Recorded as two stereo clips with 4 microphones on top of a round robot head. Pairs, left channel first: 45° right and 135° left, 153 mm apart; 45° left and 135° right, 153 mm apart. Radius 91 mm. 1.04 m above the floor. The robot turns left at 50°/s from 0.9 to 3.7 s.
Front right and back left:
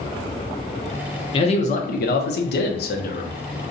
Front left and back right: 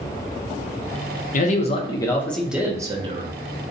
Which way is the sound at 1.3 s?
10° left.